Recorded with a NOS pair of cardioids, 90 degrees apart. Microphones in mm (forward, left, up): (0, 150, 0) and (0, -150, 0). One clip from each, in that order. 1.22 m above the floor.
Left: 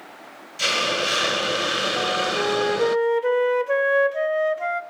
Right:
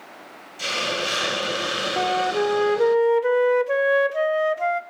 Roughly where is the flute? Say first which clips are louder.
Right 1 dB; ahead.